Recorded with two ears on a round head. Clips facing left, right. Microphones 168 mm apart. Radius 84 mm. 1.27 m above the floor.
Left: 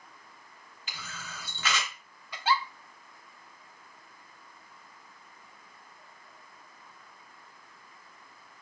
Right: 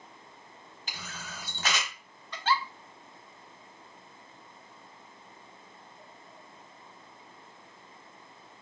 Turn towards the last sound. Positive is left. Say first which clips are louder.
# left 1 dB
turn(degrees=10)  # may be behind; listen again after turning